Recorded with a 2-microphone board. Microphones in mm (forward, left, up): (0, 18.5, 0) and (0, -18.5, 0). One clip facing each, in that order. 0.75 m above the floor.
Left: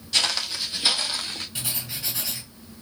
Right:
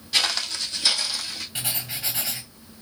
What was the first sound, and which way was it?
Footsteps, 10° right (ahead or behind).